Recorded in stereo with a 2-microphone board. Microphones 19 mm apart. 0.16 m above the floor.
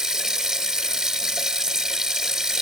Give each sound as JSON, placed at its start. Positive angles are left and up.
{"t": 0.0, "sound": "running water", "side_deg": -40, "distance_m": 1.3}